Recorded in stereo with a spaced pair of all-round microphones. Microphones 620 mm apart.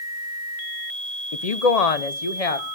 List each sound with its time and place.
1.3 s a woman speaking: 65° left (ahead or behind), 0.7 m